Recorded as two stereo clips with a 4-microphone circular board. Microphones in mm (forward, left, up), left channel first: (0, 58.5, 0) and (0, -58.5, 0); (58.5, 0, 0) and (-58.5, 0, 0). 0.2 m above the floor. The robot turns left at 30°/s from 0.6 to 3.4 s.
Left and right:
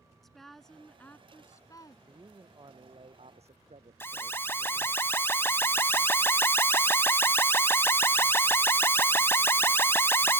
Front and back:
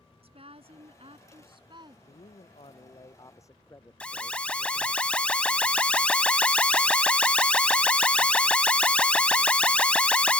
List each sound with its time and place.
0.2 s a woman speaking: straight behind; by 2.0 s 135° left
2.1 s a man speaking: 25° right; by 5.0 s 65° right
4.0 s an alarm: 65° left